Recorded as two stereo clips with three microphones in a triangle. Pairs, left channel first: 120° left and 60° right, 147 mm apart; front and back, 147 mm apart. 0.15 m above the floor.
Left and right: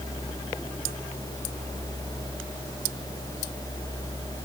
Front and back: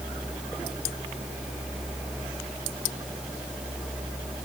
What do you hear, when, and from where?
Only background noise.